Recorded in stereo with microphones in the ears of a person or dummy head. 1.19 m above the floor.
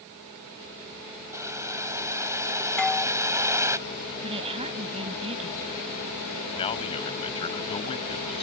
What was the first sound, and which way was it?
Boiling, 15° right (ahead or behind).